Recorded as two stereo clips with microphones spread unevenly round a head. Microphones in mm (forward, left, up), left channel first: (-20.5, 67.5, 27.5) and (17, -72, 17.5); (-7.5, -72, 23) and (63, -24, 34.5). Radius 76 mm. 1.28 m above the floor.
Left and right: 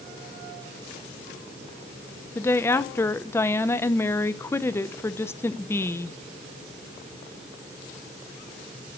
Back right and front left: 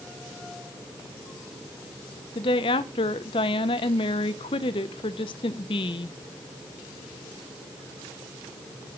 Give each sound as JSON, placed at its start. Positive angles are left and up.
{"t": 2.4, "sound": "a woman speaking", "azimuth_deg": 180, "distance_m": 0.8}